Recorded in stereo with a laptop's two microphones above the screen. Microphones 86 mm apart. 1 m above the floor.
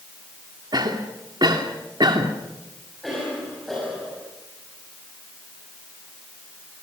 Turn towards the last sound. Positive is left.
turn(degrees=5)  # may be behind; listen again after turning